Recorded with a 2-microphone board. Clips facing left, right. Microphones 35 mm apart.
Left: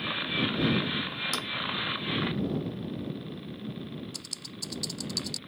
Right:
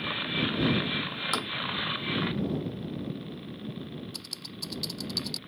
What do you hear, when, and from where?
1.3 s tapping: 35° right (ahead or behind)
4.1 s typing on a keyboard: 15° right (ahead or behind)